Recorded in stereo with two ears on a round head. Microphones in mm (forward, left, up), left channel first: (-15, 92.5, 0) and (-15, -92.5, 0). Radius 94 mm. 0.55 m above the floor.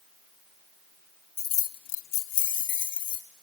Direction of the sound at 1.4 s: 10° left (ahead or behind).